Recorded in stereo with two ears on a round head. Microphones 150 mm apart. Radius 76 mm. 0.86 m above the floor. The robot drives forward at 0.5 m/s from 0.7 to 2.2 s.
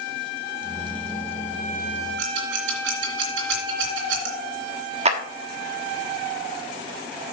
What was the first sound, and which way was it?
Scissors, 80° right.